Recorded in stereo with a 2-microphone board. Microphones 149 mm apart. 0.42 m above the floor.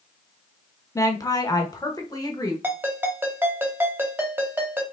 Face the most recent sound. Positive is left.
turn(degrees=-15)  # may be behind; listen again after turning